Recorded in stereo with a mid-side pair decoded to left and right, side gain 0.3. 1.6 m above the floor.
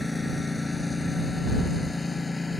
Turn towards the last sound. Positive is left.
turn(degrees=30)